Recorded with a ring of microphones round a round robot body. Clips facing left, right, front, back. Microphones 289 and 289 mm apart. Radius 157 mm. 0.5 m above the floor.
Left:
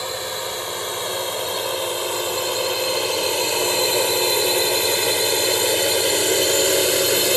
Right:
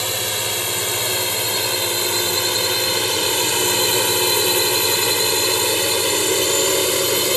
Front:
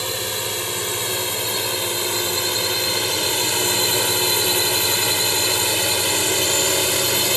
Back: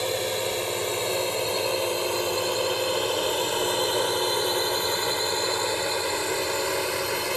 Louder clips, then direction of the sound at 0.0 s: Right 1 dB, back 2 dB; 65° right.